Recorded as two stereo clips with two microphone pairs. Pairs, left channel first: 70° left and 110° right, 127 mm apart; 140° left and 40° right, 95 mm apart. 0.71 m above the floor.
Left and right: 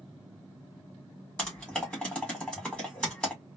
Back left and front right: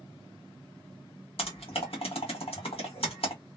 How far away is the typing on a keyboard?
About 1.7 m.